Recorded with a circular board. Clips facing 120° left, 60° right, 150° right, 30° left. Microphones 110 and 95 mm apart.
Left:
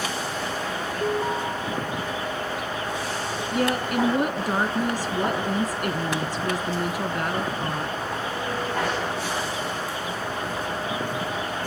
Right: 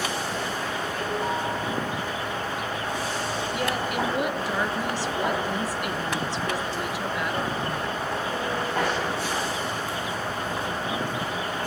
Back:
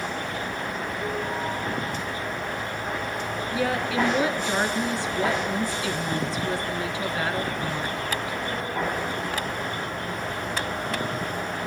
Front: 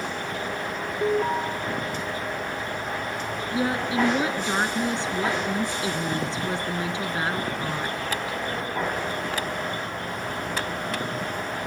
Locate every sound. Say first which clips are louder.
1.0 s an alarm: left 4 dB, front 9 dB; 45° left, 5.5 m
3.5 s a woman speaking: left 6 dB, front 1 dB; 85° left, 3 m